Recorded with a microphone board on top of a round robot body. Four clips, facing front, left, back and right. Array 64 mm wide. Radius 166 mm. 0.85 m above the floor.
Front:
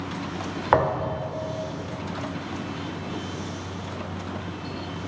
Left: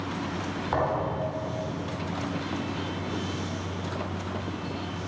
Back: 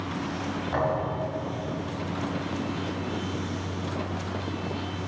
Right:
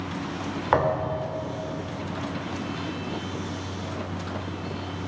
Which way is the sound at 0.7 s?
25° right.